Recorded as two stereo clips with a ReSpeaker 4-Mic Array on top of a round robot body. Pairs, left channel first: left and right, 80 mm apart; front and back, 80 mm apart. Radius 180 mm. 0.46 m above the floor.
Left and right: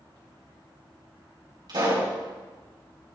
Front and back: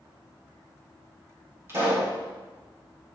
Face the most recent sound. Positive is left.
turn(degrees=-120)